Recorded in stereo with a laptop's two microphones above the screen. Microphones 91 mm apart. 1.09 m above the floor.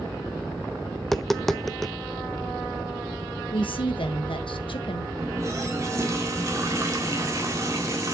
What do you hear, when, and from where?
1.0 s tapping: centre (ahead or behind), 0.5 m
3.5 s a woman speaking: 70° left (ahead or behind), 1.3 m
5.2 s a running tap: 35° right (ahead or behind), 1.6 m